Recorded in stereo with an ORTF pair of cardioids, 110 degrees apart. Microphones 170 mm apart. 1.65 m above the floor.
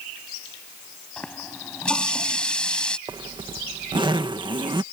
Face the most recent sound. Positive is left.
turn(degrees=-25)